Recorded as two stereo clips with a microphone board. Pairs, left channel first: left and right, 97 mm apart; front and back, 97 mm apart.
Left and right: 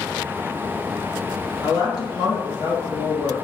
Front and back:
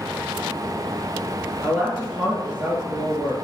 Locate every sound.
1.6 s a woman speaking: 110° left, 2.0 m